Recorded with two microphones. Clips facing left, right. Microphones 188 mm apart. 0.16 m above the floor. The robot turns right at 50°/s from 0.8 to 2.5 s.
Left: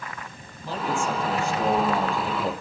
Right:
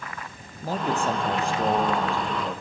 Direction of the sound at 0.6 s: 50° right.